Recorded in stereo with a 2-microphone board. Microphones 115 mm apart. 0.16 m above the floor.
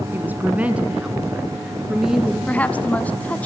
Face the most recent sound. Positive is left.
turn(degrees=15)  # may be behind; listen again after turning